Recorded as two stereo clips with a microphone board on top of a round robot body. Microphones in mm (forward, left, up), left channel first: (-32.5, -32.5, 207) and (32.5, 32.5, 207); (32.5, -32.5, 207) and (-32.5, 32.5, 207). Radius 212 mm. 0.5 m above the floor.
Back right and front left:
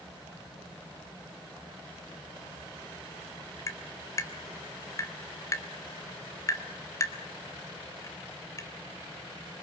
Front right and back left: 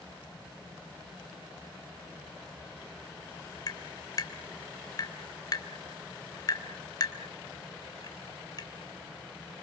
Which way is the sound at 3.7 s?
85° right.